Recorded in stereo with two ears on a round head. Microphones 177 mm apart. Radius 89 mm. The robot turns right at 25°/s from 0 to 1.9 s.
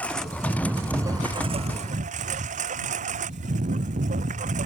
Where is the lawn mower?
170° left; by 4.7 s 140° right.